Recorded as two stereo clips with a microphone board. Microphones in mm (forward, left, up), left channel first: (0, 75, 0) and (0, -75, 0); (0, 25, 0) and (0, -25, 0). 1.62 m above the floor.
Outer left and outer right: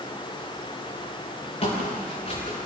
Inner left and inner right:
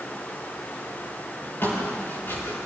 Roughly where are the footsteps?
Left.